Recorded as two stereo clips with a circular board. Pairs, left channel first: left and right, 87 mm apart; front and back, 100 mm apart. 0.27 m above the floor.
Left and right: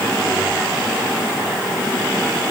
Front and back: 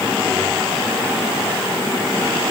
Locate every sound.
Only background noise.